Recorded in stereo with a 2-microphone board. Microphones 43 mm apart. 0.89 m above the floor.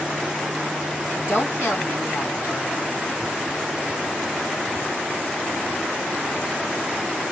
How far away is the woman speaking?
About 1.9 m.